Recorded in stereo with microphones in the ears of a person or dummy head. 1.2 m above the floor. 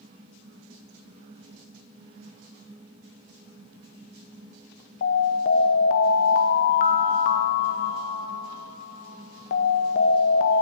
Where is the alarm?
45° left (ahead or behind), 0.7 m.